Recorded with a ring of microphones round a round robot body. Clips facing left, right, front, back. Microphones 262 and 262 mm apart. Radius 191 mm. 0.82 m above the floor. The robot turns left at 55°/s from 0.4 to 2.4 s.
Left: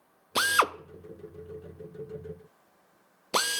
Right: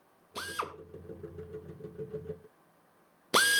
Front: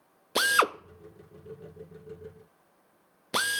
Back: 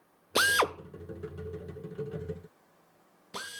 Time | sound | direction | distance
0.3 | a drill | 95° left | 0.5 m